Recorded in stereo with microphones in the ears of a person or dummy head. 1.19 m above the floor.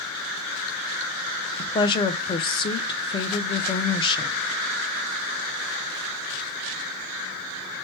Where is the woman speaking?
25° left (ahead or behind), 0.5 m.